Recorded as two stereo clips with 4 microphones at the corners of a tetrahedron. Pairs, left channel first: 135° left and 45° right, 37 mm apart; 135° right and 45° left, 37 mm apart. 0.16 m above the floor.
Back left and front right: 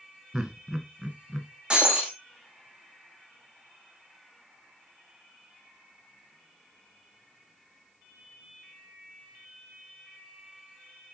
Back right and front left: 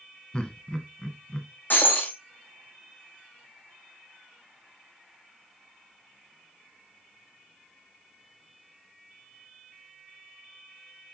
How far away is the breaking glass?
About 2.5 m.